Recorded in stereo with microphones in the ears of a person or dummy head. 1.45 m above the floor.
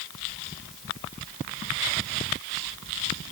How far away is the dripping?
I don't hear dripping.